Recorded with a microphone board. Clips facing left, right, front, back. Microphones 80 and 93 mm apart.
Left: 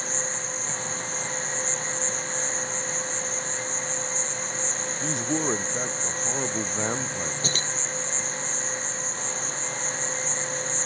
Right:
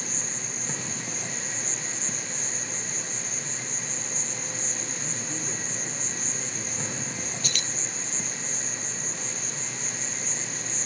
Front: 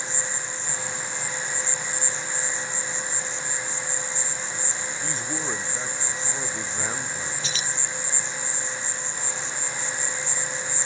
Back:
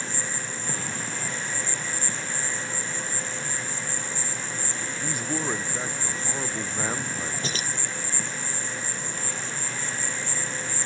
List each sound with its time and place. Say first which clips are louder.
0.0 s an insect: left 5 dB, even; 140° right
5.0 s a man speaking: left 14 dB, back 4 dB; 100° left
7.4 s keys jangling: left 5 dB, back 1 dB; 140° left